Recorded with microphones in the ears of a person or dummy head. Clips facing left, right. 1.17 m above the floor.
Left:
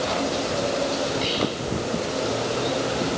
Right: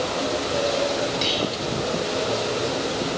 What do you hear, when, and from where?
1.2 s whispering: 55° right (ahead or behind), 5.5 m